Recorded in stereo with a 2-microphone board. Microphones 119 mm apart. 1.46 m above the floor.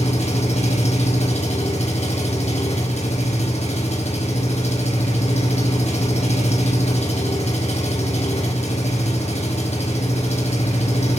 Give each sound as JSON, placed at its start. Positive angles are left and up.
{"t": 0.0, "sound": "an engine running", "side_deg": 70, "distance_m": 5.0}